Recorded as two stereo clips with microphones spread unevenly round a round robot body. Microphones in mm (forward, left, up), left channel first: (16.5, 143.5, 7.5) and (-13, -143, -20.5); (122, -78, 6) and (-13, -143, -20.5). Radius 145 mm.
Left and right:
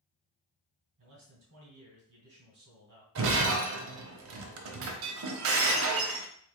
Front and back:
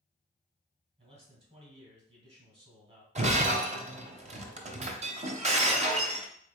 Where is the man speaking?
120° right, 2 m.